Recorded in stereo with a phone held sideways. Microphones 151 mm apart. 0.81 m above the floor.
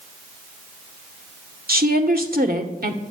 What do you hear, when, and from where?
1.7 s a woman speaking: 70° right (ahead or behind), 1.9 m